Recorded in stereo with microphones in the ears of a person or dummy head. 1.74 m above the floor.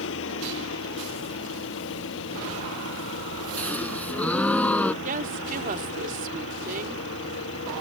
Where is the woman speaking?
45° right (ahead or behind).